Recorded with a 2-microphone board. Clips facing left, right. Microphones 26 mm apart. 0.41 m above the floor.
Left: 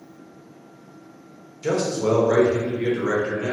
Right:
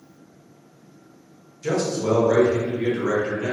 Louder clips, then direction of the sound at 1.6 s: Left 1 dB; 30° left (ahead or behind).